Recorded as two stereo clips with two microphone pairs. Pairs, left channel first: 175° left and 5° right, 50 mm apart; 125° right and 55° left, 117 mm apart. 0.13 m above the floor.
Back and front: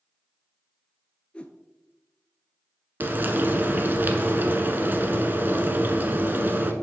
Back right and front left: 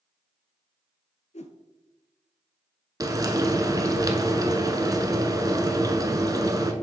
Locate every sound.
1.3 s a whoosh: 120° right, 0.6 m
3.0 s frying: 20° left, 0.6 m